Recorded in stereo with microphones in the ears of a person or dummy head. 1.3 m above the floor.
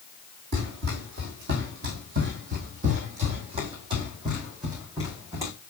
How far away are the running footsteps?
About 2.5 m.